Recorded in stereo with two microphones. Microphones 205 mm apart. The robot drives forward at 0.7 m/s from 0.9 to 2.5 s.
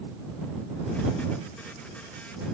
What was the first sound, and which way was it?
Only background noise.